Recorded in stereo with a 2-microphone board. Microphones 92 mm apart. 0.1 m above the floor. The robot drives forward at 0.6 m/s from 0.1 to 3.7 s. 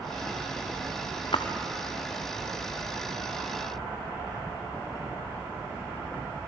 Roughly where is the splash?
Left.